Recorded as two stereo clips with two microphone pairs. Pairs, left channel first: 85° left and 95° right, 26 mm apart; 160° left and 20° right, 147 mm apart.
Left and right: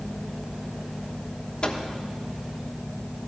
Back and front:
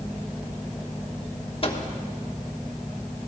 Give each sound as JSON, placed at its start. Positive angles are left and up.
{"t": 1.6, "sound": "a microwave", "azimuth_deg": 120, "distance_m": 1.1}